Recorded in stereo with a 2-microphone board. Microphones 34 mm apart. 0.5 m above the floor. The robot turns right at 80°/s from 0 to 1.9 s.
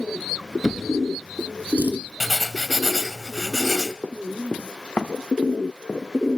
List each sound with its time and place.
0.6 s a drawer: 10° left (ahead or behind), 1.4 m; by 2.0 s 80° right, 1.4 m
2.2 s writing: 10° right (ahead or behind), 0.7 m
4.0 s running footsteps: 65° left (ahead or behind), 1.1 m; by 6.1 s 45° left (ahead or behind), 2 m